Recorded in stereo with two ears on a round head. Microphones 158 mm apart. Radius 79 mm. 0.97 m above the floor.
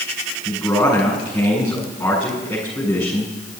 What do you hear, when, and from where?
0.5 s a man speaking: 10° left (ahead or behind), 8 m